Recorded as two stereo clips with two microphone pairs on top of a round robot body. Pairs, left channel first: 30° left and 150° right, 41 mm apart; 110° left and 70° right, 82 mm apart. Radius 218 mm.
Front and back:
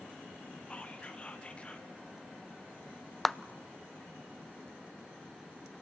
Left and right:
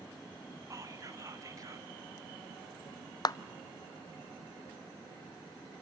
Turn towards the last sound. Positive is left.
turn(degrees=125)